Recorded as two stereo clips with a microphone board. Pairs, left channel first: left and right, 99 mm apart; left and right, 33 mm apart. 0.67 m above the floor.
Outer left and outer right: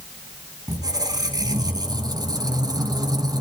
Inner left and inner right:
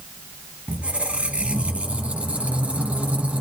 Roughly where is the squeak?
Right.